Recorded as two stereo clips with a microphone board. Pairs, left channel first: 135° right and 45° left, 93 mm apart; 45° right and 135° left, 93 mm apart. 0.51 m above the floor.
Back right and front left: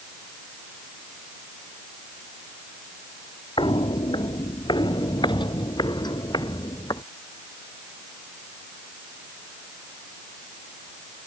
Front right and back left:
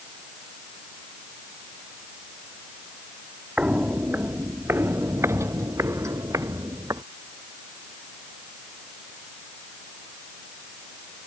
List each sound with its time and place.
3.6 s footsteps: 145° right; by 7.0 s 175° right